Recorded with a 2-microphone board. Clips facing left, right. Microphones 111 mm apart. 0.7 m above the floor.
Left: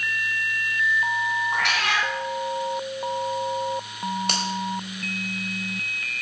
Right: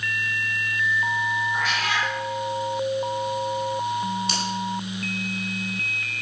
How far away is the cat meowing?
About 4.5 m.